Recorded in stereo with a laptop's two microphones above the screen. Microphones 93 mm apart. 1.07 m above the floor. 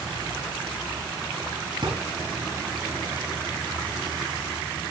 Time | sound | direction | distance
1.8 | a drawer | 50° right (ahead or behind) | 7 m